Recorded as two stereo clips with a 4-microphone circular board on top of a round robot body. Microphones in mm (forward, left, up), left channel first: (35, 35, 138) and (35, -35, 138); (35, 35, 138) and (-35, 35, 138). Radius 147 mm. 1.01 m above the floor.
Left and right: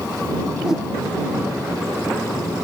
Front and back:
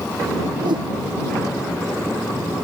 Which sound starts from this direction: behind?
A whoosh, at 0.6 s.